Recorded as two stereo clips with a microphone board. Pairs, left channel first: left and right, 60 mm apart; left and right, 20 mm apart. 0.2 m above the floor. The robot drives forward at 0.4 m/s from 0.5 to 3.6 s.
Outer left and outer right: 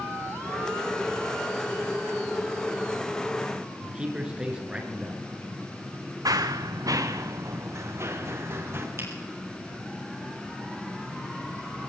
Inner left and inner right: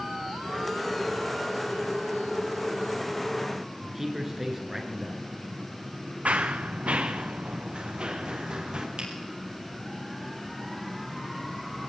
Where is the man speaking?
15° right (ahead or behind), 3 m.